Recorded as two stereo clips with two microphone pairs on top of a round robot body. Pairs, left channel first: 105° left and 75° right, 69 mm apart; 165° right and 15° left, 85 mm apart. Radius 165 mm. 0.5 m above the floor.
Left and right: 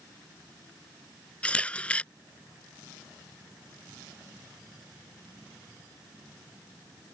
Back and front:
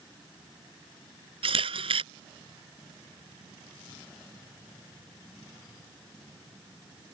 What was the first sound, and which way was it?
A camera shutter, 30° left.